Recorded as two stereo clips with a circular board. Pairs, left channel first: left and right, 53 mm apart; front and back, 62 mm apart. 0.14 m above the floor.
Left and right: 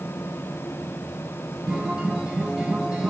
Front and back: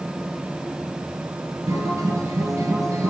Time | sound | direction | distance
1.7 | a guitar | 165° right | 1.4 m